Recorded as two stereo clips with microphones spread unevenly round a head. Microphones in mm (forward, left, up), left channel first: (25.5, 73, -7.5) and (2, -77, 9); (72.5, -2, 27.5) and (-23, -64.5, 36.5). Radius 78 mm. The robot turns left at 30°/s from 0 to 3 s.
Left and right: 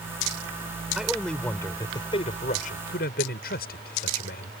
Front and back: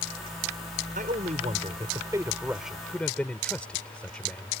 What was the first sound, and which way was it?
A man speaking, straight behind.